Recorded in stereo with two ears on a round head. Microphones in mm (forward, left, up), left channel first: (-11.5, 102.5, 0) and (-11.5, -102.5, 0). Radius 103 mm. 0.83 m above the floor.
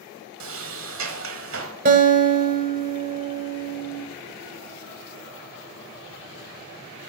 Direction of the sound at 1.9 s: 40° right (ahead or behind).